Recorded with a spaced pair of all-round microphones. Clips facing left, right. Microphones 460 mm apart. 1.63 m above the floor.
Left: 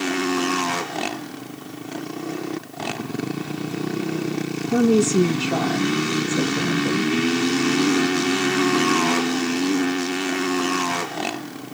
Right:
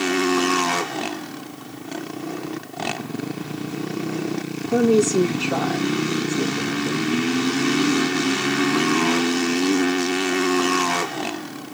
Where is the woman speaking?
15° left (ahead or behind), 2.5 m; by 7.1 s 80° left, 1.8 m.